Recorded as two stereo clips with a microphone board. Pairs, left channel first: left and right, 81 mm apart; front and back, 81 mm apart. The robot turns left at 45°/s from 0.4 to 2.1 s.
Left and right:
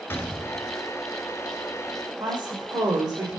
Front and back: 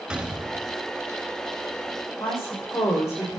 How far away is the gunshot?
About 1.0 m.